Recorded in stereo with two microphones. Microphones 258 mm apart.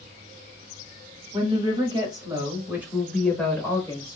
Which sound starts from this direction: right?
A woman speaking, at 1.3 s.